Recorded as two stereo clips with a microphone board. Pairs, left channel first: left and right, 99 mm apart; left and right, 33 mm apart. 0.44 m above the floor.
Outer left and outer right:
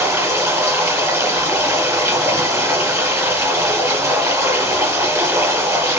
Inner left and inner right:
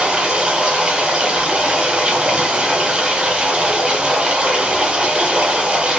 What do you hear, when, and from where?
0.0 s running water: 25° right (ahead or behind), 1.1 m